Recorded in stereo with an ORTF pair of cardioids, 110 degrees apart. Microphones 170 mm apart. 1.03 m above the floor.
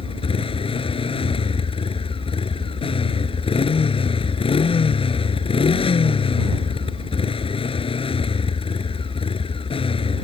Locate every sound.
0.0 s a motorcycle: 35° left